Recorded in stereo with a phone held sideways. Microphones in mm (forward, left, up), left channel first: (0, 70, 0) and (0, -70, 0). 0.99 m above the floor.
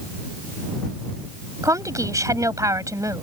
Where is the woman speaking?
25° right (ahead or behind).